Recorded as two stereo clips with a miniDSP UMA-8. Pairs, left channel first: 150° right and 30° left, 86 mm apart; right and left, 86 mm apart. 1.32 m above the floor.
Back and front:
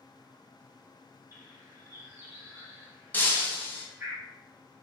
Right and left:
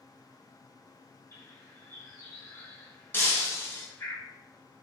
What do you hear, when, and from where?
1.3 s a bird: 35° right, 1.0 m
3.1 s breaking glass: 110° right, 0.6 m